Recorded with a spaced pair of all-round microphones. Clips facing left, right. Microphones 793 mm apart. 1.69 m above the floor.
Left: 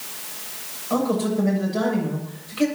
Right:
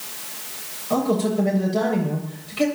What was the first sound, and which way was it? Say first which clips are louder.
A man speaking: right 1 dB; 60° right (ahead or behind).